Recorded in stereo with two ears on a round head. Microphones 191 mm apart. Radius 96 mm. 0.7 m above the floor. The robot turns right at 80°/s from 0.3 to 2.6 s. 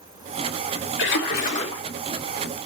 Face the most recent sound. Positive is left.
turn(degrees=-140)